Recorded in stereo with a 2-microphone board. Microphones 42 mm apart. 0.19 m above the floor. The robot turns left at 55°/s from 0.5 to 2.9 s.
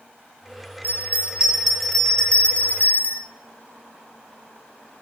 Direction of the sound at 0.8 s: 125° right.